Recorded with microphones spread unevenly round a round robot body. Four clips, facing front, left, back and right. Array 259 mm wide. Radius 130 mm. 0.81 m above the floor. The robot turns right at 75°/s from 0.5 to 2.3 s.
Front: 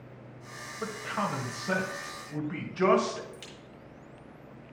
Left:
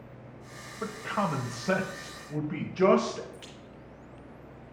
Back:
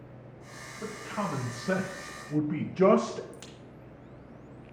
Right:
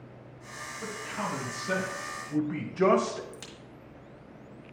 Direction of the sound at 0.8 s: 60° left.